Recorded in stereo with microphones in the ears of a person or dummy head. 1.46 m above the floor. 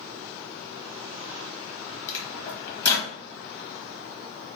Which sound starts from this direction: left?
A microwave, at 2.1 s.